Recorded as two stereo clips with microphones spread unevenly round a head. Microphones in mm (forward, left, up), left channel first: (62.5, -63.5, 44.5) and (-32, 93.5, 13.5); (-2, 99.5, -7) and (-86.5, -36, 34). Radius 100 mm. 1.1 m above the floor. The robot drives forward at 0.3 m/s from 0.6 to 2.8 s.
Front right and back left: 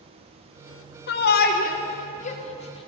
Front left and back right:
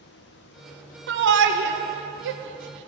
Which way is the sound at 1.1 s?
95° right.